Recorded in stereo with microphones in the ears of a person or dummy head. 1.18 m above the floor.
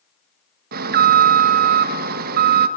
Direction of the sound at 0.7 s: 55° right (ahead or behind).